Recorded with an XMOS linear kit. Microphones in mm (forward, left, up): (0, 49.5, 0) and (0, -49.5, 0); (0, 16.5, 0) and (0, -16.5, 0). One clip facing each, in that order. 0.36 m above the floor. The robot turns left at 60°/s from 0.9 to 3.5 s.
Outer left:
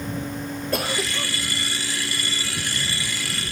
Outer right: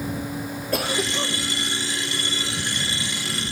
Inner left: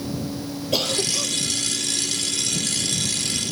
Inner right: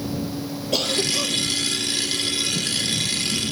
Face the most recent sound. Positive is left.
turn(degrees=-155)